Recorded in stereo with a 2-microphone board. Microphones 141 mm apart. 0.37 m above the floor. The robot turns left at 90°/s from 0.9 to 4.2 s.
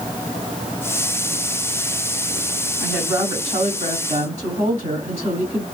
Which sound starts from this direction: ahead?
A woman speaking, at 2.8 s.